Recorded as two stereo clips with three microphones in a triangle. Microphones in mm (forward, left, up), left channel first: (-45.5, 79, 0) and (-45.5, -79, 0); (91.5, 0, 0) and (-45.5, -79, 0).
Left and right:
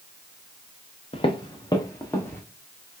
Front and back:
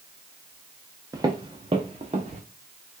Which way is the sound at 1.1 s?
145° left.